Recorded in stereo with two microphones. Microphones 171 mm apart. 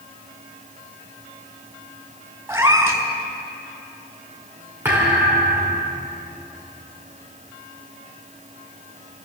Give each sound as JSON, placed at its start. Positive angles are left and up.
{"t": 2.5, "sound": "a cat meowing", "side_deg": -15, "distance_m": 1.9}
{"t": 4.8, "sound": "a thud", "side_deg": -10, "distance_m": 4.5}